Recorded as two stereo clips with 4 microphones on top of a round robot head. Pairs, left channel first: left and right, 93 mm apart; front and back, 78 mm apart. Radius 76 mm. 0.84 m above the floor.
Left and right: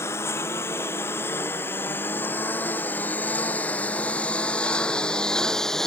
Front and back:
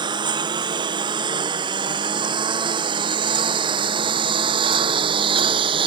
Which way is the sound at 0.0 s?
160° left.